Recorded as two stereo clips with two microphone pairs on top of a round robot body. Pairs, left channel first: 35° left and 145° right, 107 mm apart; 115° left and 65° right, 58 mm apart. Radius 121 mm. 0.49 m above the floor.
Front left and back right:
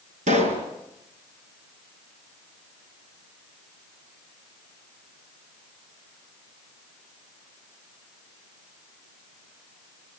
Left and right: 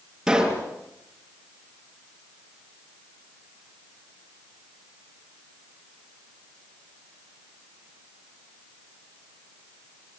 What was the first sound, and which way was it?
A pop, 145° right.